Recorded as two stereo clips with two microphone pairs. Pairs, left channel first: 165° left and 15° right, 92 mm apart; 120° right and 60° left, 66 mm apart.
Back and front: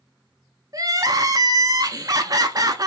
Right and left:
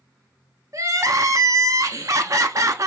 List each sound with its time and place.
0.7 s crying: 30° left, 0.6 m